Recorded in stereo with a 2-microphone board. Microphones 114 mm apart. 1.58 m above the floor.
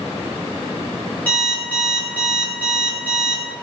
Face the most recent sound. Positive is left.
turn(degrees=15)  # may be behind; listen again after turning